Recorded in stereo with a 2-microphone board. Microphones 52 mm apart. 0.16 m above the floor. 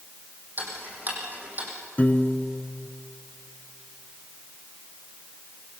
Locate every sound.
0.6 s ticking: 35° right (ahead or behind), 5.5 m
2.0 s a piano: 30° left (ahead or behind), 1.0 m